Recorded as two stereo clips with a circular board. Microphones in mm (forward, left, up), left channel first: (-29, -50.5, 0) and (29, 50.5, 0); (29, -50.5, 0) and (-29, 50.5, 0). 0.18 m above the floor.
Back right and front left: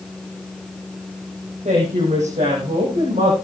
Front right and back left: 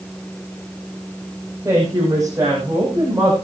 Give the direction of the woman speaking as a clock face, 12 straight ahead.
10 o'clock.